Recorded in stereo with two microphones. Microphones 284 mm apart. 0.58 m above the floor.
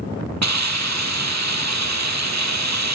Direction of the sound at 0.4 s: 70° right (ahead or behind).